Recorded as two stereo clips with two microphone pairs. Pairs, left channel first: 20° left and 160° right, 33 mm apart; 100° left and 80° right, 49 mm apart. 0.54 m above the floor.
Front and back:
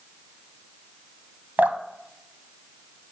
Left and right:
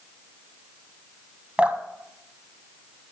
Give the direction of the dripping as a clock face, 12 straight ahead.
5 o'clock.